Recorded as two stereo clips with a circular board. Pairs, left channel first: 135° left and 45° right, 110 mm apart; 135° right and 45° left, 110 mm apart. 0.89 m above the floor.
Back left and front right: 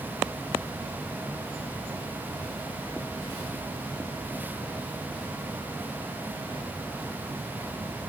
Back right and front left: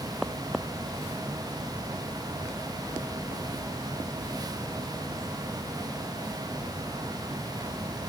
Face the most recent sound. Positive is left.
No sound to turn to.